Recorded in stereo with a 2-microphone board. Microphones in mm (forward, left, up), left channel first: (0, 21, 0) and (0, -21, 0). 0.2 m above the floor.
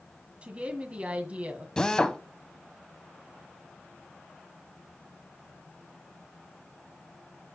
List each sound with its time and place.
0.4 s a woman speaking: 35° right (ahead or behind), 1.7 m
1.8 s a drill: 15° left (ahead or behind), 0.9 m